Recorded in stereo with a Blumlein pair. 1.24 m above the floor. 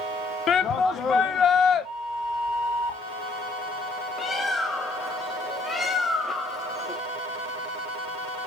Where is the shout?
30° left, 0.9 m.